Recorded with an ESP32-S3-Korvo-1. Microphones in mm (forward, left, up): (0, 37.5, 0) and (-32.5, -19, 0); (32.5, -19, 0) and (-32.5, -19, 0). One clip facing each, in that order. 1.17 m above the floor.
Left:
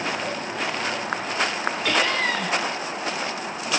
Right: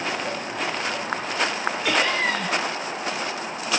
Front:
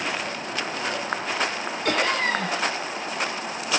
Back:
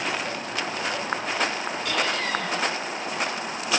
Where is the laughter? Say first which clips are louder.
Even, front 4 dB; 40° right, 1.8 m.